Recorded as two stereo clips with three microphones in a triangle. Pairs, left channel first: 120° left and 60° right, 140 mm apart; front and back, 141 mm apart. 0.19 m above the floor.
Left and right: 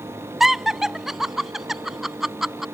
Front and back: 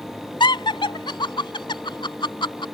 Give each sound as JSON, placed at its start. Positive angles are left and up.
{"t": 0.4, "sound": "laughter", "azimuth_deg": 25}